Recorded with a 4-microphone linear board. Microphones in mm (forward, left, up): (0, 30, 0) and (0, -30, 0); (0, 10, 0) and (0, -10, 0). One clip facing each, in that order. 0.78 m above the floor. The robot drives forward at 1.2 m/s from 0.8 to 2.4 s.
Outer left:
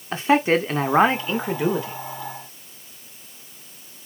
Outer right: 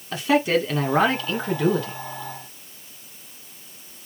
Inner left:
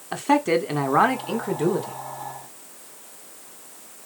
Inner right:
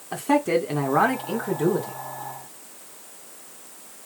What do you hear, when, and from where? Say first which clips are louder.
0.1 s a man speaking: outer left 2 dB, inner left 1 dB; 35° left (ahead or behind), 1.9 m; by 2.0 s 20° left (ahead or behind), 3 m